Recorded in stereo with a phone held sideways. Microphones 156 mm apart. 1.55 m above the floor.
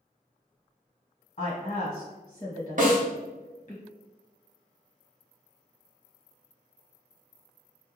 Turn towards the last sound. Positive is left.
turn(degrees=-55)  # may be behind; listen again after turning